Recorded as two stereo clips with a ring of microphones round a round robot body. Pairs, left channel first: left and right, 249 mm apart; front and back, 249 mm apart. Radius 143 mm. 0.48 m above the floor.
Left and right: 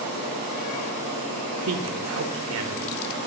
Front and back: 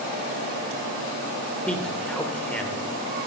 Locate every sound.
1.7 s a man speaking: 85° right, 1.5 m